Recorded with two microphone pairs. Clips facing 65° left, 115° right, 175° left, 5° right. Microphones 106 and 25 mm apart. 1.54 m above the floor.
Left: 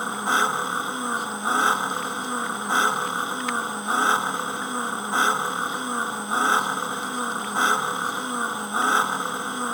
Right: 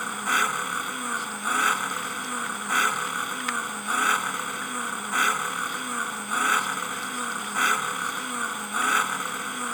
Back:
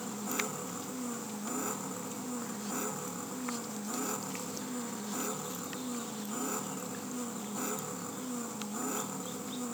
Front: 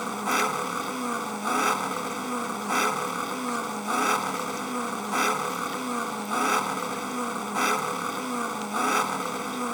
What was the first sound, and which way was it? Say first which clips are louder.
An engine running: left 3 dB, front 11 dB; straight ahead.